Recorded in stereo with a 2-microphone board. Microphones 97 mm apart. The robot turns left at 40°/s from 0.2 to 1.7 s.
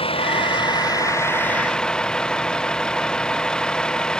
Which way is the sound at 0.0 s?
70° left.